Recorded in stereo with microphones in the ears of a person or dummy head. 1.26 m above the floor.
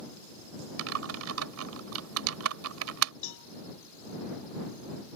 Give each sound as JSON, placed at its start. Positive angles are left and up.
{"t": 0.8, "sound": "typing on a keyboard", "side_deg": -75}
{"t": 3.2, "sound": "a cowbell", "side_deg": 70}